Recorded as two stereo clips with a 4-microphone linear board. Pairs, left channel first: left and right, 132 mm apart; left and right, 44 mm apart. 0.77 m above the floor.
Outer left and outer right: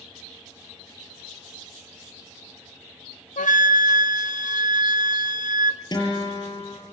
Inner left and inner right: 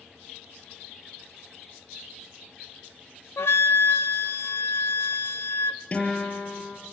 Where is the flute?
75° left (ahead or behind), 0.6 m.